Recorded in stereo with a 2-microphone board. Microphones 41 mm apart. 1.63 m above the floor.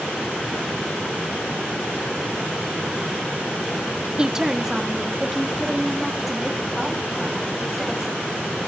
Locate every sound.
4.2 s a woman speaking: 20° right (ahead or behind), 1.2 m; by 8.1 s centre (ahead or behind), 4.5 m